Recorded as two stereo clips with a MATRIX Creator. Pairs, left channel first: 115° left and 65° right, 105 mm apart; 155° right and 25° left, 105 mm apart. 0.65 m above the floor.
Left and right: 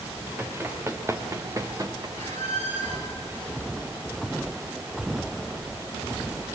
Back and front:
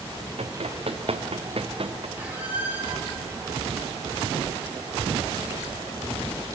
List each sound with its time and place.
0.4 s running footsteps: 5° left, 2.5 m; by 2.1 s 10° right, 3 m
2.2 s a squeak: 55° right, 4 m